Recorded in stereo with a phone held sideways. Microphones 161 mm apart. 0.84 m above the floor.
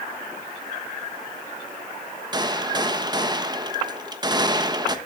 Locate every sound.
2.3 s a gunshot: 25° right (ahead or behind), 1.1 m